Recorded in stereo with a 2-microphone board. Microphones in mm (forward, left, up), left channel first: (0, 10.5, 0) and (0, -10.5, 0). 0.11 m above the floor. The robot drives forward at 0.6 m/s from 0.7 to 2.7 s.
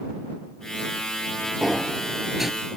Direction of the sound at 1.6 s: 15° right (ahead or behind).